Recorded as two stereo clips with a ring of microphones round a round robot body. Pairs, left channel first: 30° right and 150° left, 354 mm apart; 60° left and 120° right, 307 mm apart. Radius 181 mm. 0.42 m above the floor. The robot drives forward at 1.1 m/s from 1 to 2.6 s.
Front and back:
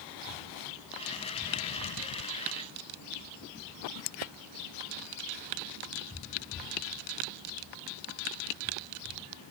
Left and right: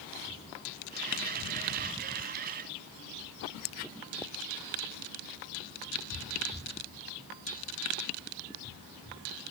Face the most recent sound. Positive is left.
turn(degrees=145)